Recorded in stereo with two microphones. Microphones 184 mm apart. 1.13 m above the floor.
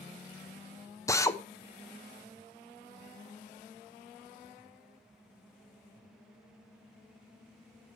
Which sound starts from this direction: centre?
A drill, at 1.1 s.